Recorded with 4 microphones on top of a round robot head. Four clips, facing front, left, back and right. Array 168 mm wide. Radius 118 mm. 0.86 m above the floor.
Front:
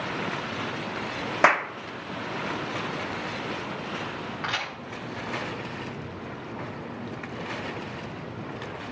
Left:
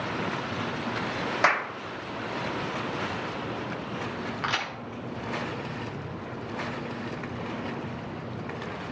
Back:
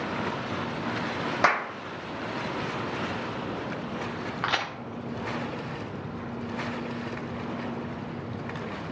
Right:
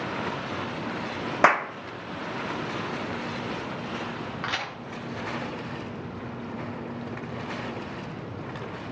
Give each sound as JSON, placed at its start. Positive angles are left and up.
{"t": 1.4, "sound": "a clap", "azimuth_deg": -60, "distance_m": 0.7}
{"t": 4.4, "sound": "a crack", "azimuth_deg": 170, "distance_m": 1.2}